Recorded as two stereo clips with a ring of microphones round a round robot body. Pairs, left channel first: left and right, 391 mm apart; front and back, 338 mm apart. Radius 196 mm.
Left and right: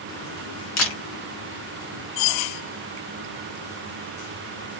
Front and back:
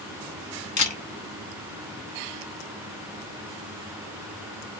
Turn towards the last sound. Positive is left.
turn(degrees=50)